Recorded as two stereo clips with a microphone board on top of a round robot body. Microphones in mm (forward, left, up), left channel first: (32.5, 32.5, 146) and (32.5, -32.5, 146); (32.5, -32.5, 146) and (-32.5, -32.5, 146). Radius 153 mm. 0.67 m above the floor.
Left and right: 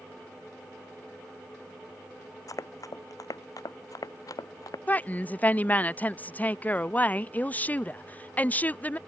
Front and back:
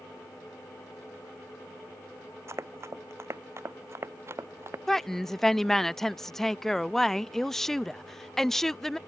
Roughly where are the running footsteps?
Behind left.